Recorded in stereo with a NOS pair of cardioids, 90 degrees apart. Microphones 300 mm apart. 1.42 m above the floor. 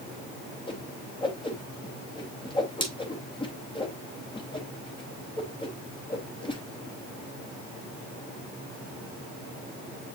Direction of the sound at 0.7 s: 15° left.